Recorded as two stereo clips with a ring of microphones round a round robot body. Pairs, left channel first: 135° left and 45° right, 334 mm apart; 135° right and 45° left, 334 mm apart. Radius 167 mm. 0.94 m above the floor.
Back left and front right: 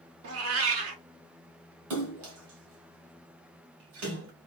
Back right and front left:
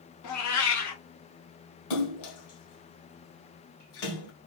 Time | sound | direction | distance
0.2 | a cat meowing | 95° right | 1.1 m
1.9 | a splash | 95° right | 2.5 m